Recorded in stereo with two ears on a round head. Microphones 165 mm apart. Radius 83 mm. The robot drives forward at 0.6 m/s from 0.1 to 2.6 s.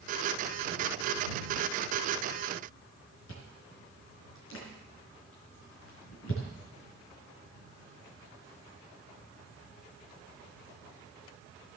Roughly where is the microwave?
No microwave in this recording.